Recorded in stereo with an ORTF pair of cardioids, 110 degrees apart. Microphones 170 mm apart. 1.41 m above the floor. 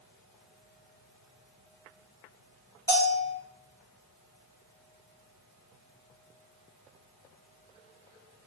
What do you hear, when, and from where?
2.9 s a bell: 20° left, 1.7 m